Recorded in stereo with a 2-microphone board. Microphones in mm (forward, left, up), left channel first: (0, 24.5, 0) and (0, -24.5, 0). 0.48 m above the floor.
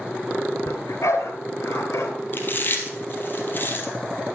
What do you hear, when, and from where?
0.7 s a dog barking: 85° left, 2.5 m
2.3 s chewing: 40° left (ahead or behind), 2.5 m